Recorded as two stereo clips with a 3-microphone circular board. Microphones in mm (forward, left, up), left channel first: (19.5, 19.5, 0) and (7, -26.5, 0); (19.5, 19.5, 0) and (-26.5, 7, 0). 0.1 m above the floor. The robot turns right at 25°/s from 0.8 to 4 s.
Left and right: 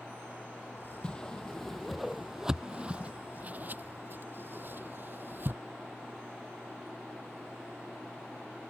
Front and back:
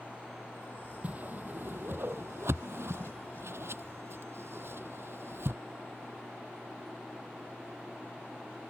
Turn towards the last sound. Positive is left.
turn(degrees=-140)